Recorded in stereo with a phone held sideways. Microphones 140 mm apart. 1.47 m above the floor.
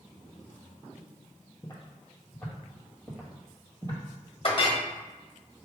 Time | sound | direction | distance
1.6 | footsteps | 20° left (ahead or behind) | 1.7 m
4.4 | a clink | 45° left (ahead or behind) | 1.0 m